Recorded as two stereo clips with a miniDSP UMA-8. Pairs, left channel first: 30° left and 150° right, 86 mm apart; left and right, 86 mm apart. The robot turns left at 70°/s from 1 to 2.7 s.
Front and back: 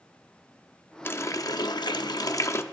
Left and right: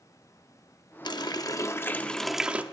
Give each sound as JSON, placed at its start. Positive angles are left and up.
{"t": 1.1, "sound": "a running tap", "azimuth_deg": 90, "distance_m": 0.7}